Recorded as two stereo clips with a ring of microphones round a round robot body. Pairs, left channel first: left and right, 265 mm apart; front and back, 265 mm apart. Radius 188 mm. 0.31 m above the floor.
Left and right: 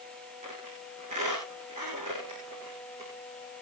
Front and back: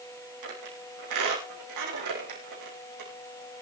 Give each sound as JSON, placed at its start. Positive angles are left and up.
{"t": 0.4, "sound": "a squeak", "azimuth_deg": -165, "distance_m": 6.5}